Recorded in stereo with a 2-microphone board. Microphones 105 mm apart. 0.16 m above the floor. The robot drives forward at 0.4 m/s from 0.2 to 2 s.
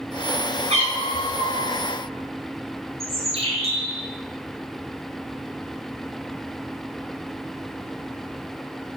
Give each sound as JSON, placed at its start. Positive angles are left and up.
{"t": 0.7, "sound": "a cat meowing", "side_deg": -70, "distance_m": 1.9}
{"t": 3.0, "sound": "a bird", "side_deg": -65, "distance_m": 1.4}